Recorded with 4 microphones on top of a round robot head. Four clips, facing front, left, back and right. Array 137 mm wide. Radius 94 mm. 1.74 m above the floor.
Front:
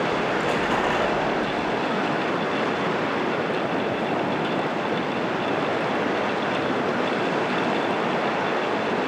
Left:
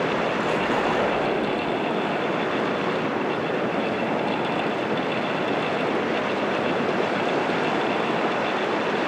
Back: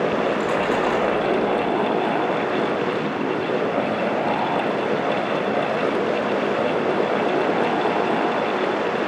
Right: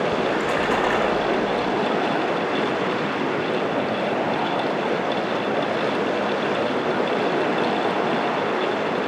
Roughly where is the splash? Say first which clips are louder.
Right 2 dB, back 3 dB; right.